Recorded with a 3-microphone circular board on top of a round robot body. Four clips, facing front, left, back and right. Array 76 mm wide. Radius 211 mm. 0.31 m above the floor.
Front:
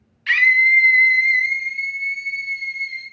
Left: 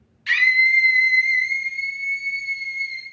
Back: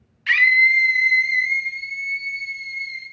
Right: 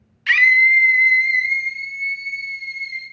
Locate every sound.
0.3 s a scream: 95° right, 1.0 m; by 3.0 s 5° right, 1.7 m